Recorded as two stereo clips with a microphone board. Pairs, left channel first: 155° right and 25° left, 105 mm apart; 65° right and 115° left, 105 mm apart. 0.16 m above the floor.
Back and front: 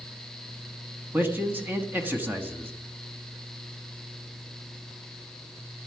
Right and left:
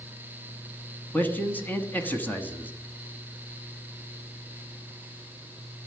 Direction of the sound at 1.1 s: 20° right.